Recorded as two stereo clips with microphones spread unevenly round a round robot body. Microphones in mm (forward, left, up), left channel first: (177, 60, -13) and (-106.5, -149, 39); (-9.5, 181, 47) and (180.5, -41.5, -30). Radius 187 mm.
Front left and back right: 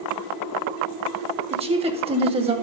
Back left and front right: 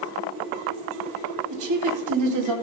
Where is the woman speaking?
70° right, 2.5 m.